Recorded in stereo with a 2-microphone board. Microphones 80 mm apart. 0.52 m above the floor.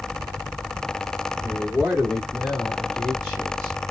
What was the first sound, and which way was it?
A man speaking, 10° left (ahead or behind).